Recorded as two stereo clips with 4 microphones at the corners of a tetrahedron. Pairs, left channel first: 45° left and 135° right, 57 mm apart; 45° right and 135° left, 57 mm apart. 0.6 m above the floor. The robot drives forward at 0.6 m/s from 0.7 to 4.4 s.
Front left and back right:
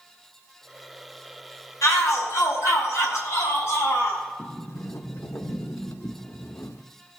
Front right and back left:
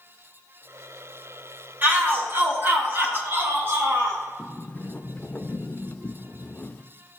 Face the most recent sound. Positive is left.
turn(degrees=10)